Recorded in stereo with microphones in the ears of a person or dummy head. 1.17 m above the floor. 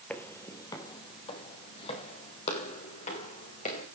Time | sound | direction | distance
0.1 | footsteps | 10° left (ahead or behind) | 1.5 m